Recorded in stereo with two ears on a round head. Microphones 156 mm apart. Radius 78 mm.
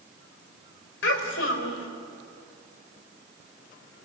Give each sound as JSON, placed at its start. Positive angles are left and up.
{"t": 1.0, "sound": "a child speaking", "side_deg": 80, "distance_m": 4.5}